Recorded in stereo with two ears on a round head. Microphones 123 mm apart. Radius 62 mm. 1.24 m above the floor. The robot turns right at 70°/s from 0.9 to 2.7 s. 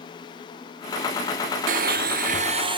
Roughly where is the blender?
Right.